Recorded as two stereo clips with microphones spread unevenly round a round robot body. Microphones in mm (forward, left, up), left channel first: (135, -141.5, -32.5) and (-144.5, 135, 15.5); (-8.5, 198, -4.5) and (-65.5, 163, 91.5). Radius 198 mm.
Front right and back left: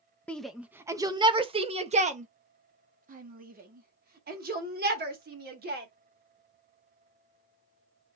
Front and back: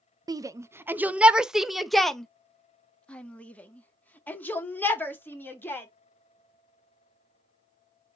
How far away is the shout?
About 0.7 m.